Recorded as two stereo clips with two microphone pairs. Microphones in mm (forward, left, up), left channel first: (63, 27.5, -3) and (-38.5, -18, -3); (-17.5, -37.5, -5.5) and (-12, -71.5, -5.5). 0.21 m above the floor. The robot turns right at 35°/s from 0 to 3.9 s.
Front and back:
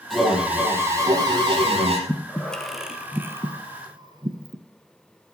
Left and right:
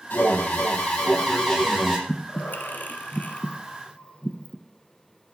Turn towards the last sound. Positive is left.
turn(degrees=155)